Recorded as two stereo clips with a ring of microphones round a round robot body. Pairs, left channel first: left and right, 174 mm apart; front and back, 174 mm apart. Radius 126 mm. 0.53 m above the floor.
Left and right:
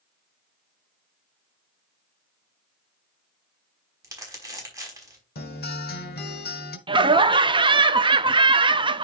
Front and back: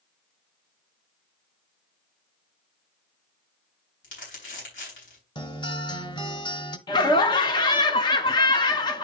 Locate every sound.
4.0 s crumpling: 20° right, 5 m
5.3 s a guitar: 65° left, 1.5 m
6.9 s laughter: 50° right, 0.8 m